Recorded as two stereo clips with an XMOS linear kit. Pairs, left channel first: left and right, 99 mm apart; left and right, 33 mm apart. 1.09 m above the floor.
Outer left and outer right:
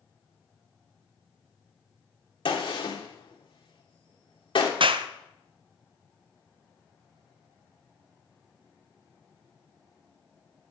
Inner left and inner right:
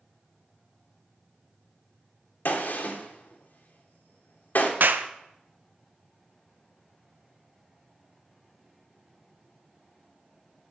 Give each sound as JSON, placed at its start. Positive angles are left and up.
{"t": 2.5, "sound": "a gunshot", "side_deg": 60, "distance_m": 1.7}
{"t": 4.8, "sound": "a clap", "side_deg": -60, "distance_m": 0.6}